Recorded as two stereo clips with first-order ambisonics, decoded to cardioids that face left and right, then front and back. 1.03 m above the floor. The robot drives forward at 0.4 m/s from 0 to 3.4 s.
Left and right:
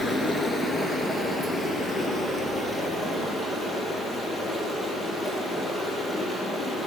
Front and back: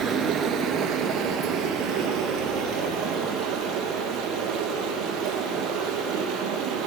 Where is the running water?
160° left, 1.1 m; by 6.9 s 175° left, 2 m.